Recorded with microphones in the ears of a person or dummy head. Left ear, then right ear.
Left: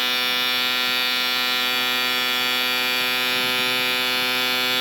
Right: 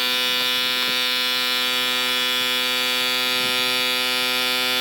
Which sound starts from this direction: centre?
A machine running, at 0.0 s.